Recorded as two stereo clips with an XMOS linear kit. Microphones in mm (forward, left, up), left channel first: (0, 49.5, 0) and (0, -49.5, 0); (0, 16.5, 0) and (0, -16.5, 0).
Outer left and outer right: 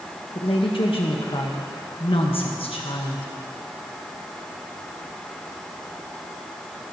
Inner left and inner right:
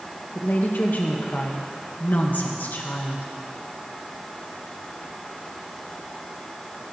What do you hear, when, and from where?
0.3 s a woman speaking: 65° left (ahead or behind), 1.7 m